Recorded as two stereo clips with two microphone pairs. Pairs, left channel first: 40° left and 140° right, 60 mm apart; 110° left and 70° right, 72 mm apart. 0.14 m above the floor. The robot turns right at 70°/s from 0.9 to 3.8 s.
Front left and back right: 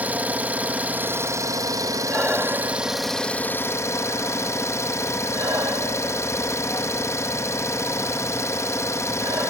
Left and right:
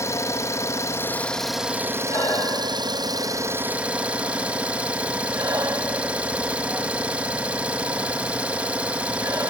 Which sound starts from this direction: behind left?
Breathing, at 2.1 s.